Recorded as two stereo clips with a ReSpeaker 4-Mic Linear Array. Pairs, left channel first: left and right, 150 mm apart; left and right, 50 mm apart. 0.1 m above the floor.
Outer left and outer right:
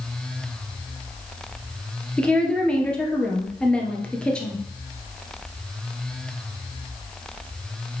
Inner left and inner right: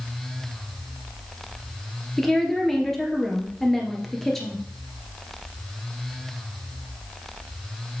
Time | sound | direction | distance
2.2 | a woman speaking | 5° left (ahead or behind) | 1.7 m